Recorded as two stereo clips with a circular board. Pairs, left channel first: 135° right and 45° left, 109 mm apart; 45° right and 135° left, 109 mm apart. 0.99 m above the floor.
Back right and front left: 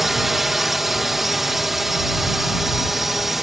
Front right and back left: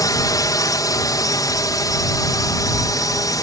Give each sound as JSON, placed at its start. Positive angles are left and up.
{"t": 0.0, "sound": "a drone", "azimuth_deg": -40}